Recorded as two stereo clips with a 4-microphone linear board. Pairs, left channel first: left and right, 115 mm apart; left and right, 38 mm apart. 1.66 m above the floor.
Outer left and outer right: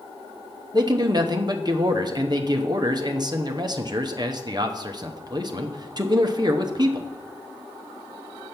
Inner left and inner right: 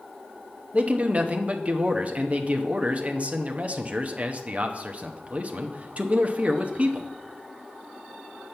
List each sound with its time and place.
0.7 s a man speaking: 35° right (ahead or behind), 0.8 m